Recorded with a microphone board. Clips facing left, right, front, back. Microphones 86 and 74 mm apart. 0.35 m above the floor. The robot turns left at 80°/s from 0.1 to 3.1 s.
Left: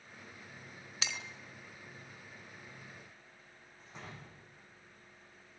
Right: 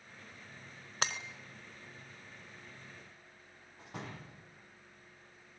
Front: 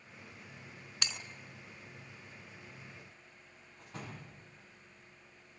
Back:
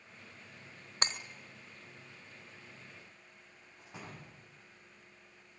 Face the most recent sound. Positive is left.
turn(degrees=-100)